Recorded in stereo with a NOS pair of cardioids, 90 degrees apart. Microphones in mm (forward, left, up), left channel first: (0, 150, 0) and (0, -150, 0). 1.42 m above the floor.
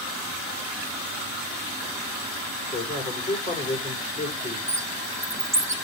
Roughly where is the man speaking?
Ahead left.